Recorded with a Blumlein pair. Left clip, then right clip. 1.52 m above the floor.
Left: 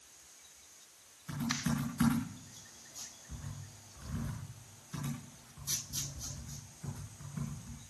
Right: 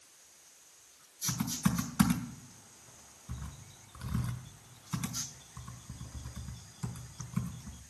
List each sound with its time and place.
1.3 s typing on a keyboard: 35° right, 4.5 m